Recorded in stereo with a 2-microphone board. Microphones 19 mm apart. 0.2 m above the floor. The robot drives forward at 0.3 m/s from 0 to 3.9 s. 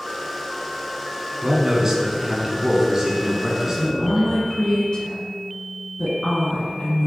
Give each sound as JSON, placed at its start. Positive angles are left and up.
{"t": 1.4, "sound": "a man speaking", "side_deg": -35, "distance_m": 1.5}
{"t": 3.8, "sound": "a woman speaking", "side_deg": 55, "distance_m": 1.8}